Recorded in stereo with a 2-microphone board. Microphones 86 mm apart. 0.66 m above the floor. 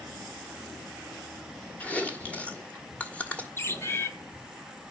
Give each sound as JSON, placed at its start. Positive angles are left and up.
{"t": 1.8, "sound": "chewing", "side_deg": 15, "distance_m": 1.6}
{"t": 3.6, "sound": "a bird", "side_deg": 30, "distance_m": 0.9}